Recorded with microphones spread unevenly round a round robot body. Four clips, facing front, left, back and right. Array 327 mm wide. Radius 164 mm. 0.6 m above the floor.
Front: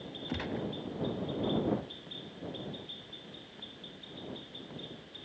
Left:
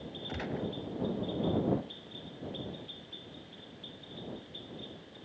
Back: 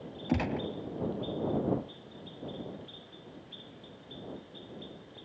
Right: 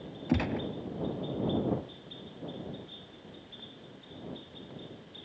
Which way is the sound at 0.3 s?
115° right.